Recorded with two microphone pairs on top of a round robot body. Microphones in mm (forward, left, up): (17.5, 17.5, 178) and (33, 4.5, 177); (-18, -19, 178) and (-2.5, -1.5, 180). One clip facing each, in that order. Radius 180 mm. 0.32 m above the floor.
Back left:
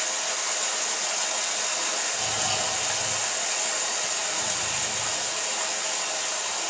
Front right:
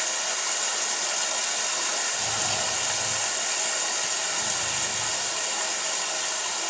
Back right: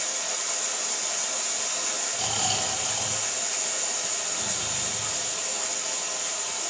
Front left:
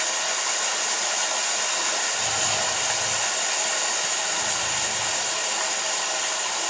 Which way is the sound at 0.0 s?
50° left.